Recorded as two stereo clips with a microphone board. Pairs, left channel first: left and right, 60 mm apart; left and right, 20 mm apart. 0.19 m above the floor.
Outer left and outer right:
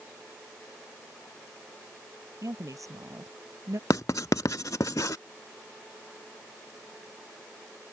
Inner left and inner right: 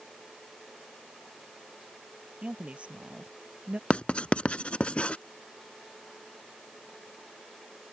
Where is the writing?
65° left (ahead or behind).